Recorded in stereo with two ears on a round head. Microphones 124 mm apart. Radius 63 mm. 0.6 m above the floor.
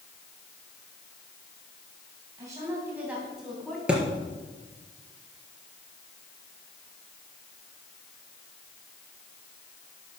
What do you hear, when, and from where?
2.4 s a woman speaking: 25° right (ahead or behind), 3.5 m; by 3.8 s 5° left (ahead or behind), 4 m
3.9 s a thud: 10° right (ahead or behind), 3 m